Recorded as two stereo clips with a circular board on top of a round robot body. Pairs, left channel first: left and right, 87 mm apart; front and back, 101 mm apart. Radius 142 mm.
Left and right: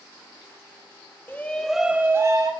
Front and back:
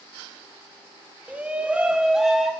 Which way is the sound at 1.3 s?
120° left.